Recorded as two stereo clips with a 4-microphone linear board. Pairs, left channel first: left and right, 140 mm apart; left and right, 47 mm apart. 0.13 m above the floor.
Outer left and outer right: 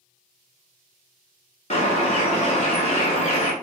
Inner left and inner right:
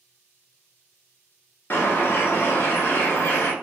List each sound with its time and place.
1.7 s a bird: 50° left (ahead or behind), 0.5 m